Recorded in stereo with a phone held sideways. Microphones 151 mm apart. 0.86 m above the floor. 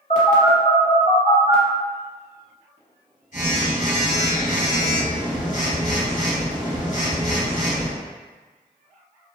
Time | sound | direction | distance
0.1 | a phone buzzing | 50° left (ahead or behind) | 1.4 m